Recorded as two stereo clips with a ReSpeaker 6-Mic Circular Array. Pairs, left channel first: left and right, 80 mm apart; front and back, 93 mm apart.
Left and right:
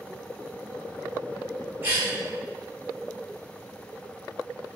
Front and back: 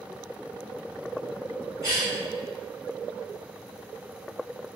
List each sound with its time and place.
1.8 s a cough: 150° right, 1.9 m